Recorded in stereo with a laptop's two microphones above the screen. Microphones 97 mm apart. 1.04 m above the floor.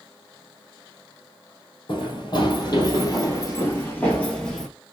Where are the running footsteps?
55° left (ahead or behind), 1.7 m; by 4.7 s 5° left (ahead or behind), 1.2 m.